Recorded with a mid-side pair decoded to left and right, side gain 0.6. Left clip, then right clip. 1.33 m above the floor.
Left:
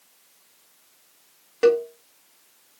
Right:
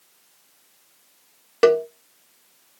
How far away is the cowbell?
About 0.7 m.